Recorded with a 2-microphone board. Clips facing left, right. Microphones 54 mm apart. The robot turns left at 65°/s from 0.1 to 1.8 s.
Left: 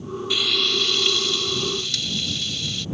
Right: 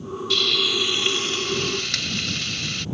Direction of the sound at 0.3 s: 15° left.